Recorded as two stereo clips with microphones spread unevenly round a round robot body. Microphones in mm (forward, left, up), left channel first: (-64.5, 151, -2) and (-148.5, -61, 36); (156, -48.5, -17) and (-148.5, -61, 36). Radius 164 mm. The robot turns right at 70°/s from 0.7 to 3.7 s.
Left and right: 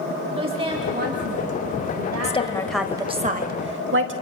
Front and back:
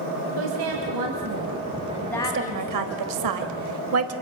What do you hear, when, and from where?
0.4 s a woman speaking: straight behind, 3 m; by 3.2 s straight ahead, 3 m
2.2 s a woman speaking: 120° left, 2.5 m; by 4.1 s 140° right, 2.5 m